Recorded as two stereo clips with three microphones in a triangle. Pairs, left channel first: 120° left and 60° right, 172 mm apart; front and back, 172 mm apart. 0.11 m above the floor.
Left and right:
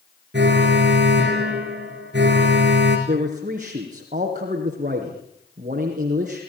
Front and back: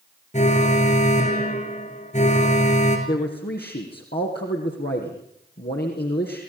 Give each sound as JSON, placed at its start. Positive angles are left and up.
{"t": 0.3, "sound": "an alarm", "azimuth_deg": -45, "distance_m": 6.5}
{"t": 3.1, "sound": "a man speaking", "azimuth_deg": -20, "distance_m": 4.5}